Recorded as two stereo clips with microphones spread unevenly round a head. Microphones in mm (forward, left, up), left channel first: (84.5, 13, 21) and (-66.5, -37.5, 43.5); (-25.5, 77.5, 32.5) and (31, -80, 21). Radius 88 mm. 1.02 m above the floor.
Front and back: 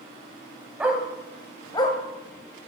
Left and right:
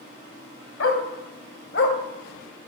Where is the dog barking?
120° left, 2 m; by 2.0 s 85° left, 1.8 m.